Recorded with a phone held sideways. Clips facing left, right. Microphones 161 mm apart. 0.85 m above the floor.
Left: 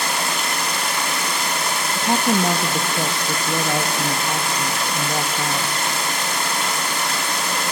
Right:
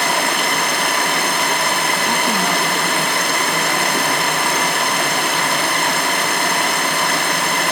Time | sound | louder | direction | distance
0.0 | running water | right 5 dB | 65° right (ahead or behind) | 1.5 m
1.9 | a woman speaking | left 1 dB | 30° left (ahead or behind) | 1.0 m